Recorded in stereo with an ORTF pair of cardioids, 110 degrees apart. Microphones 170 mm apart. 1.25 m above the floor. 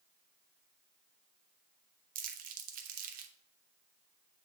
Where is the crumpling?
55° right, 1.1 m.